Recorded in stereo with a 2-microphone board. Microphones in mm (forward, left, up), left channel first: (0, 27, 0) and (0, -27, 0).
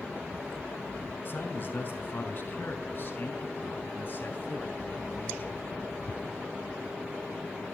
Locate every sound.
1.2 s a man speaking: 40° left (ahead or behind), 4 m; by 5.6 s 35° left (ahead or behind), 7.5 m